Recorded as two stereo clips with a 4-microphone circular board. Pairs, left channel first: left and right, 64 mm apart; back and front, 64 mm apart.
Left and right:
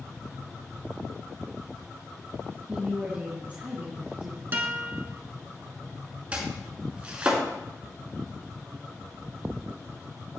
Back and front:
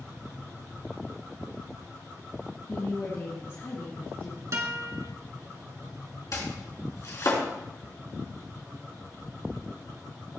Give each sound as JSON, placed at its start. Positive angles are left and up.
{"t": 2.7, "sound": "a woman speaking", "azimuth_deg": -145, "distance_m": 2.0}
{"t": 4.5, "sound": "a guitar", "azimuth_deg": -35, "distance_m": 1.6}
{"t": 6.3, "sound": "chopping", "azimuth_deg": -155, "distance_m": 3.0}